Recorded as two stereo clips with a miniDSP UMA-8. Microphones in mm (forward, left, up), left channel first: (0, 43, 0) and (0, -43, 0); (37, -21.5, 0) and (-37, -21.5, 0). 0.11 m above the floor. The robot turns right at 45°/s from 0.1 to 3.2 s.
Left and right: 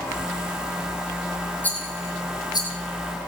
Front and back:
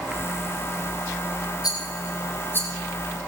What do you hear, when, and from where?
1.6 s a rattle: 20° left, 2.5 m; by 2.7 s 65° left, 2.5 m